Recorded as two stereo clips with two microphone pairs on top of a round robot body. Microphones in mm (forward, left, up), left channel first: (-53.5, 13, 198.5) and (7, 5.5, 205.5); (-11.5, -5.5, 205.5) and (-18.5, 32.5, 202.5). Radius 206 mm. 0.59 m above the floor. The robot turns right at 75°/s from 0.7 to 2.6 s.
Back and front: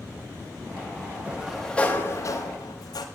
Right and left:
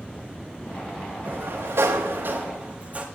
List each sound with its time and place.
1.2 s a sliding door: 55° left, 0.9 m; by 3.0 s 155° left, 0.9 m